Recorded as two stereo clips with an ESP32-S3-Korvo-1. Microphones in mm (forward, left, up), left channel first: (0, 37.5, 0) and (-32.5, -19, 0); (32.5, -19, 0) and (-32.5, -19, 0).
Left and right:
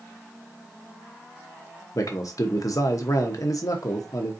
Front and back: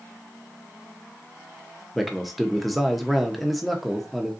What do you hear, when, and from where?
1.9 s a man speaking: 90° left, 0.9 m